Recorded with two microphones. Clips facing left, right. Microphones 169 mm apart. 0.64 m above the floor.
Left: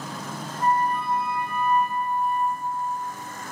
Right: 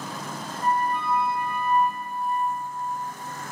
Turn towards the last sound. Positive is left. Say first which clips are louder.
# left 2 dB
turn(degrees=40)  # may be behind; listen again after turning